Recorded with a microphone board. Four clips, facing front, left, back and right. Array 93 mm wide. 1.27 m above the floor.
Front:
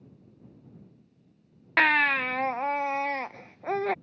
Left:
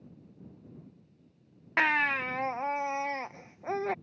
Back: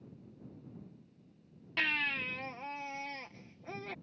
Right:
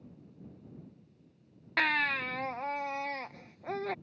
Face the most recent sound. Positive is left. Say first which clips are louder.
# left 3 dB, front 13 dB
turn(degrees=20)